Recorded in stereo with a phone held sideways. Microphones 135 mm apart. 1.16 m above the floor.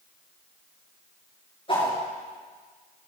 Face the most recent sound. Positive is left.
turn(degrees=40)  # may be behind; listen again after turning